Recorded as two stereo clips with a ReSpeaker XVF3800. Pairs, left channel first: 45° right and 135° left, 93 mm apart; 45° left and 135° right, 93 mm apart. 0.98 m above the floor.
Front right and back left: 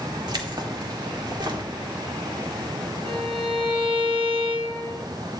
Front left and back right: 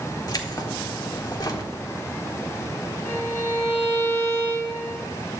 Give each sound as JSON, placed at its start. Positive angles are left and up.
{"t": 0.3, "sound": "keys jangling", "azimuth_deg": 95, "distance_m": 1.4}
{"t": 3.0, "sound": "a violin", "azimuth_deg": 110, "distance_m": 4.0}